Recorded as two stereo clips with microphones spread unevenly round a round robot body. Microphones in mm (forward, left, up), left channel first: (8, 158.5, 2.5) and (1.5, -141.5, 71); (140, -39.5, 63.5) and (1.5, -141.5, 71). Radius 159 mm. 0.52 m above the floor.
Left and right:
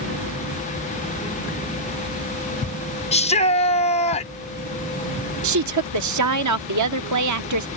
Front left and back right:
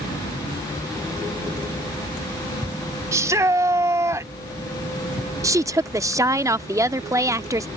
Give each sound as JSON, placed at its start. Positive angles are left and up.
{"t": 3.1, "sound": "a shout", "azimuth_deg": 145}
{"t": 5.4, "sound": "a woman speaking", "azimuth_deg": -75}